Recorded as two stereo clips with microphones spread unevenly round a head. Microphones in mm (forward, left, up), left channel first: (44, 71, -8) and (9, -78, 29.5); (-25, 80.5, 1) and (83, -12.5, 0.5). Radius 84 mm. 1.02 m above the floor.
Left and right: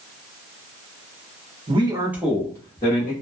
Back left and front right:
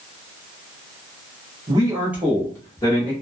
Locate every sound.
1.7 s a man speaking: 55° right, 0.9 m; by 3.1 s 90° left, 1.1 m